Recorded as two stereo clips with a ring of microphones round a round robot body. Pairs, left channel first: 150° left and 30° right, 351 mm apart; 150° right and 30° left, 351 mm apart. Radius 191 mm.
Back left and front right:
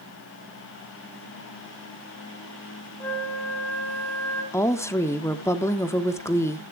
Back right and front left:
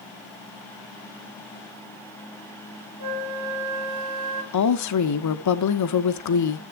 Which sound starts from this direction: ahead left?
A flute, at 3.0 s.